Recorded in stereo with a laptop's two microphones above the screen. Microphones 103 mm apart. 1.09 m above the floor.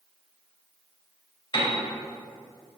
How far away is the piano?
About 2.5 m.